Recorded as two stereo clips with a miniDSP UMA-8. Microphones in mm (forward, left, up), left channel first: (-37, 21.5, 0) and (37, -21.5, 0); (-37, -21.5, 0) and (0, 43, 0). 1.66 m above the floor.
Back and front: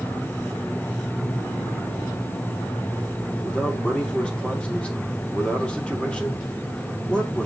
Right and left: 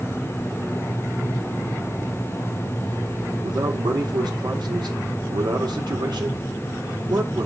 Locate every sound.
3.4 s a man speaking: 75° left, 1.9 m